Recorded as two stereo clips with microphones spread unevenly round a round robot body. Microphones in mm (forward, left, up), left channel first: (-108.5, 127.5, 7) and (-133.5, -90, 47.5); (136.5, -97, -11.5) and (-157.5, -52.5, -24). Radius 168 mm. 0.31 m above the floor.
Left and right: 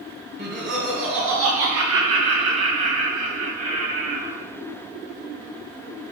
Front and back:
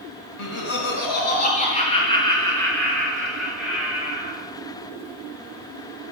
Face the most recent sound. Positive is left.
turn(degrees=-105)